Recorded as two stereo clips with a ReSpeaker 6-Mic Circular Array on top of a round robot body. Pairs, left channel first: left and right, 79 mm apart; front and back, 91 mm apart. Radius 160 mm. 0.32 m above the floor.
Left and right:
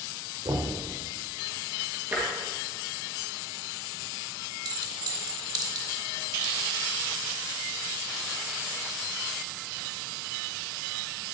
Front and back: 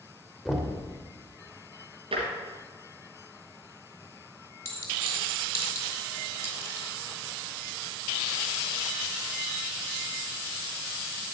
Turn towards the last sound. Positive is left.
turn(degrees=-60)